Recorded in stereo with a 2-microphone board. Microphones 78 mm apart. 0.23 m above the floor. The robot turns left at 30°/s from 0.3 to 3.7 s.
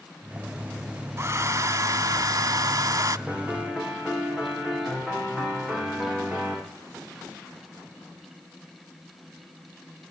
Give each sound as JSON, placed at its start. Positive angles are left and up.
{"t": 1.2, "sound": "a hair dryer", "azimuth_deg": -50, "distance_m": 0.9}
{"t": 3.3, "sound": "a piano", "side_deg": -25, "distance_m": 9.5}